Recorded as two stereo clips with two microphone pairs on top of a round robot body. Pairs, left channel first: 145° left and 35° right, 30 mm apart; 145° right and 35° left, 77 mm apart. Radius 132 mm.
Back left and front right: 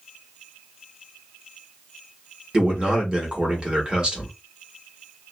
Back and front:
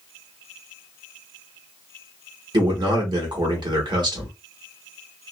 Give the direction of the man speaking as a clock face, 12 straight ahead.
11 o'clock.